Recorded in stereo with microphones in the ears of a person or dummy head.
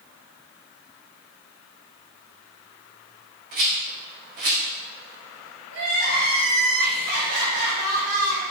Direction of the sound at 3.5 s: 50° right (ahead or behind).